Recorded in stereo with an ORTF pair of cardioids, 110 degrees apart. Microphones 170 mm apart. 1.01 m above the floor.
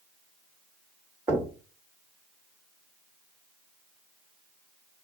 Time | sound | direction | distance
1.3 | knocking | 15° right | 1.2 m